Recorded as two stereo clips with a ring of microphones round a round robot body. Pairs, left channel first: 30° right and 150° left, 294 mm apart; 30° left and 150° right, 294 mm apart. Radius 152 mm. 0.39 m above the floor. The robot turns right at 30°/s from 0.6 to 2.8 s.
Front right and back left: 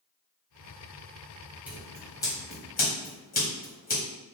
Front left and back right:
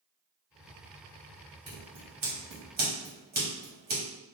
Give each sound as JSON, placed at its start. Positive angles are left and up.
{"t": 1.7, "sound": "scissors", "azimuth_deg": -125, "distance_m": 1.6}